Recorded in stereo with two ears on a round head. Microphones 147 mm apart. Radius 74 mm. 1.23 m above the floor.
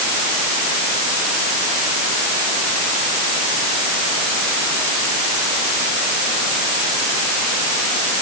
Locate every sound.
Only background noise.